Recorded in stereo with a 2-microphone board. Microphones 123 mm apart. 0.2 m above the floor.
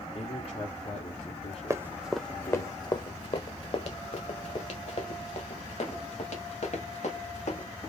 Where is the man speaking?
55° left (ahead or behind), 1.9 m.